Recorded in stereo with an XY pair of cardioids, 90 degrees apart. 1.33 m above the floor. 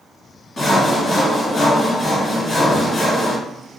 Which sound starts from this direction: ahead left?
Sawing, at 0.6 s.